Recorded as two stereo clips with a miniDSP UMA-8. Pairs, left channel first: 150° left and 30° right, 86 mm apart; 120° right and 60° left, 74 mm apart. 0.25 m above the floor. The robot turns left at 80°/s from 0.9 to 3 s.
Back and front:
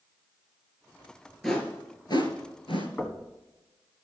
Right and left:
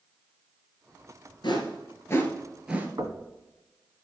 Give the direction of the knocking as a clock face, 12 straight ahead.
10 o'clock.